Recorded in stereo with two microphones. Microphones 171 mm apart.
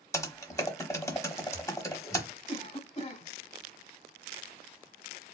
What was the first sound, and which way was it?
Typing on a keyboard, 20° left (ahead or behind).